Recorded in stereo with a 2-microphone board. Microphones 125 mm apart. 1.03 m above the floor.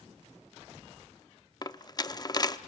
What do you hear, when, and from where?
1.6 s a dropped coin: 30° left (ahead or behind), 0.6 m